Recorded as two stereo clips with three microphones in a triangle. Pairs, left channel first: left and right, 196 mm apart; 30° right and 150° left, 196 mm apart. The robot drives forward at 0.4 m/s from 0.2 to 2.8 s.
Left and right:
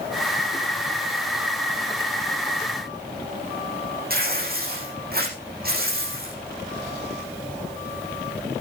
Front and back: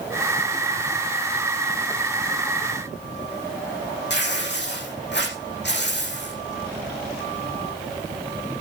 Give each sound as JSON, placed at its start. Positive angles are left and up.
{"t": 4.1, "sound": "tearing paper", "azimuth_deg": -55, "distance_m": 7.0}